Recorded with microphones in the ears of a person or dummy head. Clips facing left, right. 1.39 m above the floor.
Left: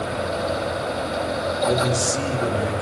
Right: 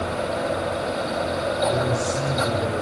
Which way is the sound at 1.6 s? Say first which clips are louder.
Left 3 dB; 85° left.